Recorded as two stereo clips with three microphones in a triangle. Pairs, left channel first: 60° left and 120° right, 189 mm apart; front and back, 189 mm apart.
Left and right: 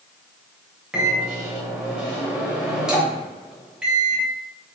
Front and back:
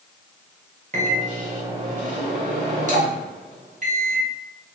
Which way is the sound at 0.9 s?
155° left.